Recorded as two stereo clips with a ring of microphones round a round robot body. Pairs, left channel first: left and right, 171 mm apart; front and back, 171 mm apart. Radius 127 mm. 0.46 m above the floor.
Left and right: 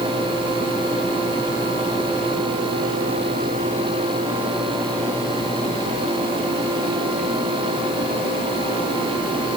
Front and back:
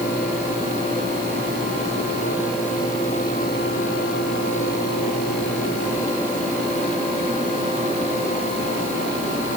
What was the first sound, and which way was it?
Only background noise.